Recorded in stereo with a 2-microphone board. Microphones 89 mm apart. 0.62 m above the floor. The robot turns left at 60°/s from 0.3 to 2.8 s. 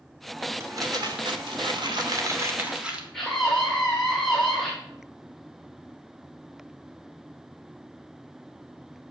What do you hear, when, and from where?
0.6 s crumpling: 35° right, 2 m; by 3.0 s 170° right, 2 m
3.1 s a scream: 5° left (ahead or behind), 1.8 m